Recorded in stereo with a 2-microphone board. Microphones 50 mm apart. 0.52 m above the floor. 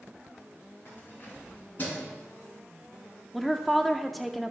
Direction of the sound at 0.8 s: 50° left (ahead or behind).